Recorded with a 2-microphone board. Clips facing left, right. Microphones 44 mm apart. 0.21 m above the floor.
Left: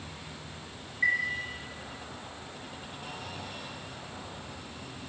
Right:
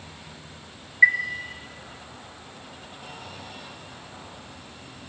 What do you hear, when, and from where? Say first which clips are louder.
1.0 s a chime: right 9 dB; 60° right (ahead or behind), 1.1 m